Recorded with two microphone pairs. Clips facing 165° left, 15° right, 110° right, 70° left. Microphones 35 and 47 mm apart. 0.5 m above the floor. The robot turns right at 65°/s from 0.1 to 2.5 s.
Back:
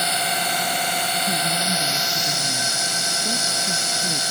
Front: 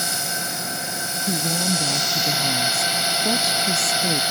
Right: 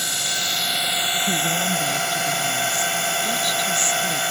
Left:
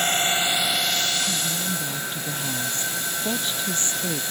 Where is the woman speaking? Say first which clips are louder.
Back 2 dB, right 6 dB; 75° right; by 4.2 s 5° left.